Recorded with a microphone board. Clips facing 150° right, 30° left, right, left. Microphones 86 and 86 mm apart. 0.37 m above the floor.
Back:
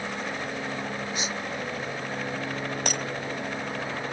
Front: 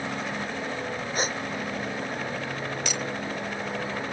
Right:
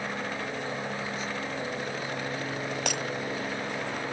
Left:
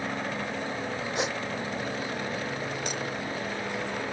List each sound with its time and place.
1.1 s a gasp: 75° left
2.9 s breaking glass: 110° right